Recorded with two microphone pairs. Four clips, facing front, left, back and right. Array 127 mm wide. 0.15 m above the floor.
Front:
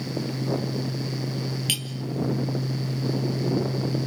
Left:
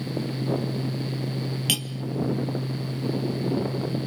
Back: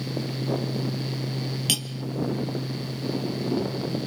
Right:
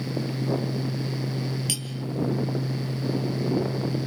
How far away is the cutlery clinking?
About 1.9 m.